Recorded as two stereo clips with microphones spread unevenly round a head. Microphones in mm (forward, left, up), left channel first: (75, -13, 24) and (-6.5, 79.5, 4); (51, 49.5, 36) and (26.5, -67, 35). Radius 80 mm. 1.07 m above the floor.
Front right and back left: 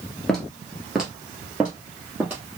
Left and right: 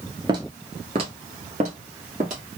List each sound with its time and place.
0.3 s footsteps: 110° right, 1.1 m; by 2.4 s 145° right, 2 m